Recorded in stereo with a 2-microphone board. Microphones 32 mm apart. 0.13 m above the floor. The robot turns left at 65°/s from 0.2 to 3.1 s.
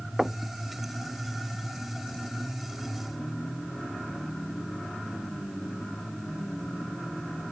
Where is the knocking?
10° right (ahead or behind); by 0.4 s 25° right (ahead or behind).